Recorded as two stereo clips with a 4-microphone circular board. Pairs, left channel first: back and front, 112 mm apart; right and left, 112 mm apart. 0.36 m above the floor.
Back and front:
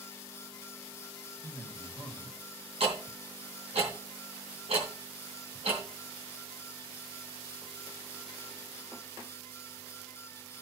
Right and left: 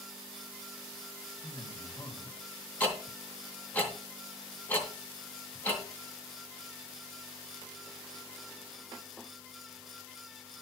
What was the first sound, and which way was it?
A man speaking, 35° right.